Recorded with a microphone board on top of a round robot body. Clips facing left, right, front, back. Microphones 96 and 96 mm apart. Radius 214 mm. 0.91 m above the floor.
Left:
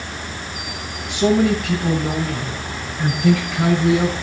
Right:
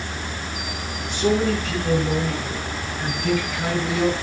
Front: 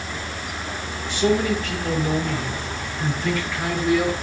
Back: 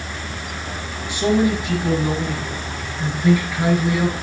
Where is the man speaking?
110° left, 8 m; by 4.1 s 100° left, 9.5 m.